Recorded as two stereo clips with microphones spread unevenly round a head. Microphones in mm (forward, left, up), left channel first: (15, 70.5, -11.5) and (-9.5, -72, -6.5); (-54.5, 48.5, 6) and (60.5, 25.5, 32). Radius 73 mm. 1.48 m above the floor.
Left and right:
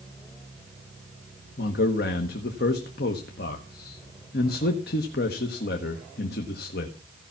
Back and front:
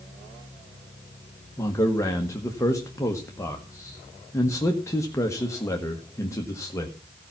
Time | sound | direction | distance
1.6 | a man speaking | 100° left | 1.3 m